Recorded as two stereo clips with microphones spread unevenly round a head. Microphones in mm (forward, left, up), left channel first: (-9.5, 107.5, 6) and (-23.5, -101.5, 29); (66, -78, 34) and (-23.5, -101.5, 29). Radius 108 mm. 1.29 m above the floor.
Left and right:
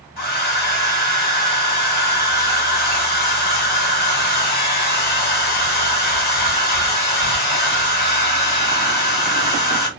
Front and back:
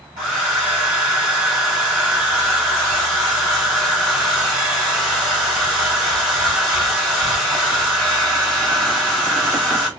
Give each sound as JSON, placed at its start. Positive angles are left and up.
{"t": 0.2, "sound": "a hair dryer", "azimuth_deg": 130, "distance_m": 1.3}